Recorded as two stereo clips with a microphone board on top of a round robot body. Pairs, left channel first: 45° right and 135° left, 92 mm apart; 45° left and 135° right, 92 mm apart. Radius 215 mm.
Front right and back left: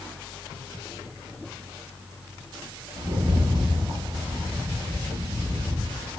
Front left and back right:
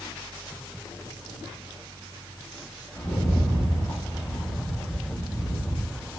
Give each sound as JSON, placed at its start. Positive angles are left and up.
{"t": 3.0, "sound": "a rattle", "azimuth_deg": 100, "distance_m": 1.1}